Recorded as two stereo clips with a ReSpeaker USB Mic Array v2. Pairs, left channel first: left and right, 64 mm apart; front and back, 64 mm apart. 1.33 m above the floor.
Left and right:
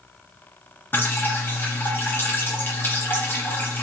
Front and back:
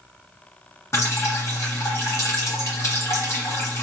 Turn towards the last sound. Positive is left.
turn(degrees=35)